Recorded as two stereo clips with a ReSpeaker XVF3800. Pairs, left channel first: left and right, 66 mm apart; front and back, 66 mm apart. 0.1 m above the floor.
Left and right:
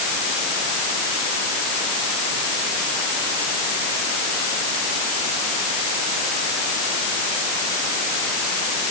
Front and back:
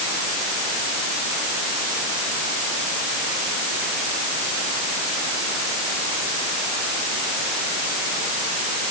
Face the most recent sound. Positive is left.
No sound to turn to.